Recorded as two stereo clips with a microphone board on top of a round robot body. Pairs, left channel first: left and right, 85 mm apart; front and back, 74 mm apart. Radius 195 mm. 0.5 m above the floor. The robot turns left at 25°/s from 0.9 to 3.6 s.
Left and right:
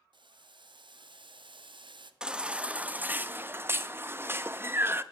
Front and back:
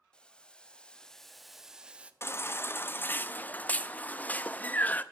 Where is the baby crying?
15° right, 0.6 m; by 5.0 s 50° right, 0.6 m.